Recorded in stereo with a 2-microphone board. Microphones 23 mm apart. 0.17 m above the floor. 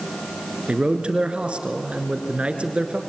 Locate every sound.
0.7 s a man speaking: 55° right (ahead or behind), 2.0 m